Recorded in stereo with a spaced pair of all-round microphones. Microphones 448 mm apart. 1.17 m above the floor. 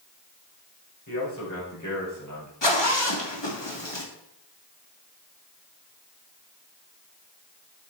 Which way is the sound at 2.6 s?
70° left (ahead or behind).